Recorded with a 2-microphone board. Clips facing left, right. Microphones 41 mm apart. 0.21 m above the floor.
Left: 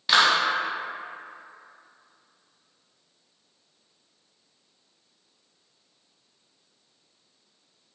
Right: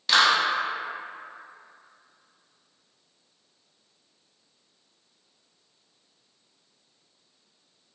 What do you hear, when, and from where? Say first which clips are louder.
0.1 s a clap: left 1 dB; 10° left (ahead or behind), 0.8 m